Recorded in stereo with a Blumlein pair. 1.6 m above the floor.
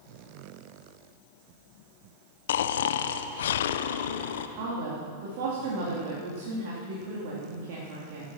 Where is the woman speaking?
50° right, 3 m.